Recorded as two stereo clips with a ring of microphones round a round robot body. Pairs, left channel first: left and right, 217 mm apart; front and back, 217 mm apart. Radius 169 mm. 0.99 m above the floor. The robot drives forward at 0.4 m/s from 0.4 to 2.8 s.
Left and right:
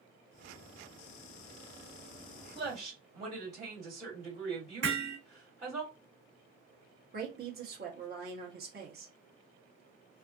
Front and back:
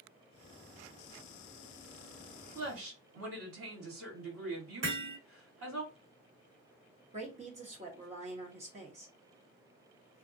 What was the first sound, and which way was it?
A woman speaking, 170° right.